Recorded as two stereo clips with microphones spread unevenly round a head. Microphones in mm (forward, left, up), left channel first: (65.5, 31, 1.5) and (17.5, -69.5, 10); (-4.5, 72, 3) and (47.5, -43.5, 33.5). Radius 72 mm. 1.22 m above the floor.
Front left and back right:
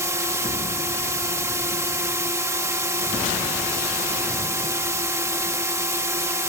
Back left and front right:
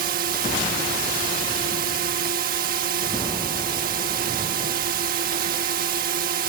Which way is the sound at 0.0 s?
50° right.